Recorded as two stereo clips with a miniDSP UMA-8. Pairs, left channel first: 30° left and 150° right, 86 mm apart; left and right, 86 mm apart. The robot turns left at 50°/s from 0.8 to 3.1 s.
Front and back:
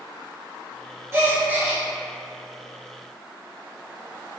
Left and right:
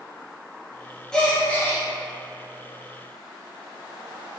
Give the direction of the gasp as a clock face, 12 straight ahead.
6 o'clock.